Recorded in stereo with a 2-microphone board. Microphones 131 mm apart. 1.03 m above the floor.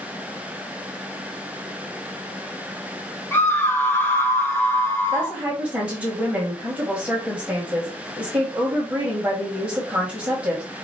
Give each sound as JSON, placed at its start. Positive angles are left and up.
{"t": 3.3, "sound": "a scream", "side_deg": 15, "distance_m": 0.6}
{"t": 5.1, "sound": "a woman speaking", "side_deg": -20, "distance_m": 1.6}